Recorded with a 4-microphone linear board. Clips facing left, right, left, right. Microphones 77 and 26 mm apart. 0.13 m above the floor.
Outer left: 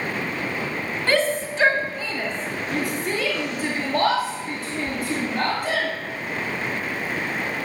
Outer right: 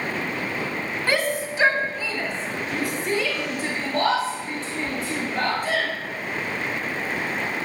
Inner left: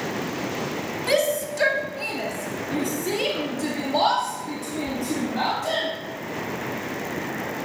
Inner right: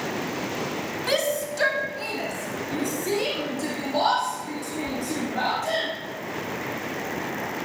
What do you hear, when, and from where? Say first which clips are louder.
1.1 s a shout: outer left 3 dB, inner left 3 dB; 10° right (ahead or behind), 1.5 m; by 5.9 s 5° left (ahead or behind), 4 m